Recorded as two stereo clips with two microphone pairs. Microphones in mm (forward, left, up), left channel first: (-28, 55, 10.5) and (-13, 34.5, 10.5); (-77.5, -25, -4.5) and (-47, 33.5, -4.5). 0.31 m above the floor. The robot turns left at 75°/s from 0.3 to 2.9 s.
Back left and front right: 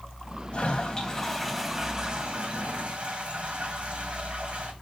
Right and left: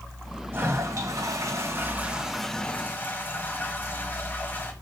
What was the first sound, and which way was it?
A toilet flushing, 110° left.